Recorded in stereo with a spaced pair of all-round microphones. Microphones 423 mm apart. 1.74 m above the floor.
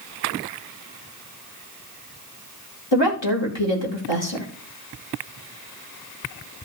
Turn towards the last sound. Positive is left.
turn(degrees=85)